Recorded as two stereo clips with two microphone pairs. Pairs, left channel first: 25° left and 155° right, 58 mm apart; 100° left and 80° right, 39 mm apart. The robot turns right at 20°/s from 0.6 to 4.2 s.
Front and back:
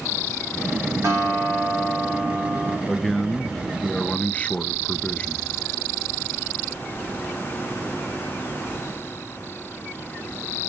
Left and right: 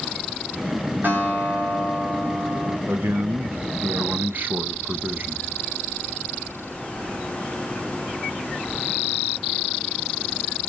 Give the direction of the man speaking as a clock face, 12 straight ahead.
2 o'clock.